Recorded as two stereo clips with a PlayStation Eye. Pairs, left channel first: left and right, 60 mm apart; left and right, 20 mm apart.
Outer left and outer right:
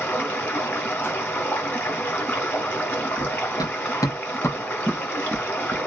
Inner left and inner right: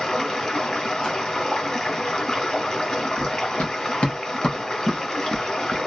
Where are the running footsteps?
85° left, 1.6 m; by 5.8 s 20° right (ahead or behind), 1.2 m.